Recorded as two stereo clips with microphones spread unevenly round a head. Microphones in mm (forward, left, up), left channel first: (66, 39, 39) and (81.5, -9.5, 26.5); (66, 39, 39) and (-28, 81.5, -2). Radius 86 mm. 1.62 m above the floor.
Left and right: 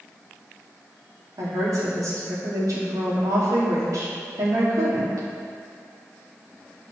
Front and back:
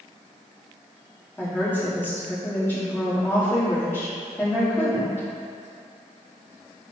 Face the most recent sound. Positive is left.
turn(degrees=-105)